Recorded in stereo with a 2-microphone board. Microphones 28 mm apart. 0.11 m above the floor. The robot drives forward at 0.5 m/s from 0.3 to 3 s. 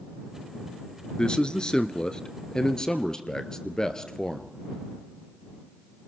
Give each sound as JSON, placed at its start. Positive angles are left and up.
{"t": 1.2, "sound": "a man speaking", "side_deg": 30, "distance_m": 1.2}